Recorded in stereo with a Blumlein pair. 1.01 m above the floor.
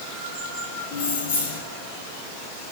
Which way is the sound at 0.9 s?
45° left.